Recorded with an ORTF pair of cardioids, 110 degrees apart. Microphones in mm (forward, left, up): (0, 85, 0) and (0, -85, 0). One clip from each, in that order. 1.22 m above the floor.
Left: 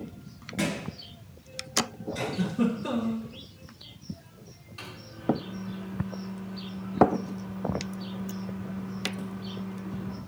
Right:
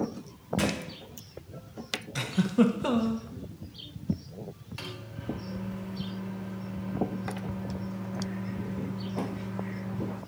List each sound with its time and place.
0.6 s a thud: 10° right, 2.5 m
2.1 s a giggle: 70° right, 1.1 m
4.8 s a microwave: 35° right, 2.5 m